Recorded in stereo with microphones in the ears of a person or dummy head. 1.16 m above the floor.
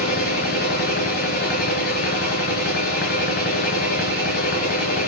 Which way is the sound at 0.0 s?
40° left (ahead or behind).